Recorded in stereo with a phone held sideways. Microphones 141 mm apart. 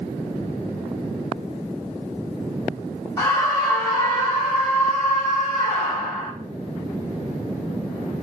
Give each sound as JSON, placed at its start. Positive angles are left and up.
{"t": 3.2, "sound": "a scream", "side_deg": 20, "distance_m": 5.5}